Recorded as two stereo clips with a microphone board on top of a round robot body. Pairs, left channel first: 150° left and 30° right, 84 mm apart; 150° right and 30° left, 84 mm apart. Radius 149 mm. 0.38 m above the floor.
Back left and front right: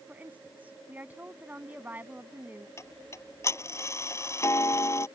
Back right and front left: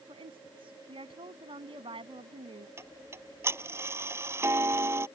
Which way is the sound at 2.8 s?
90° left.